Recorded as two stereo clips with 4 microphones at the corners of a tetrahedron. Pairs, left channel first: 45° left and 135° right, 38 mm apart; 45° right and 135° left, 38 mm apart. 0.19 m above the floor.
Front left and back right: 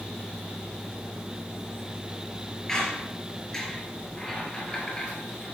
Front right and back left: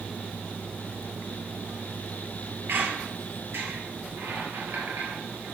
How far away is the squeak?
About 2 m.